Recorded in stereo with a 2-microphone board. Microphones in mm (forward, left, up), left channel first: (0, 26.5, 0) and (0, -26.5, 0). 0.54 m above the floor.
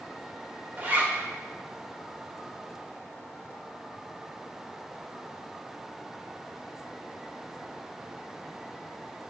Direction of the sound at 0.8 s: 40° right (ahead or behind).